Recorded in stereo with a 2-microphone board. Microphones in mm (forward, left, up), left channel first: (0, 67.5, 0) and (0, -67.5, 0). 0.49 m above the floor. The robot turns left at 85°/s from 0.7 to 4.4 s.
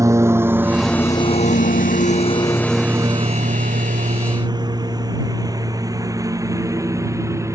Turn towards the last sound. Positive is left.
turn(degrees=-20)  # may be behind; listen again after turning